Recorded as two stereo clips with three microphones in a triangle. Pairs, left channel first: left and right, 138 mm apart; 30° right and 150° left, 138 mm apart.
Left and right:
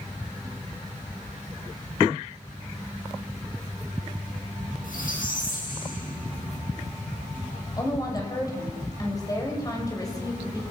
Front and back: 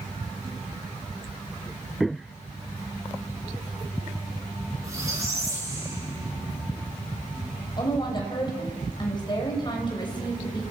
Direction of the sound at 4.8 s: 85° left.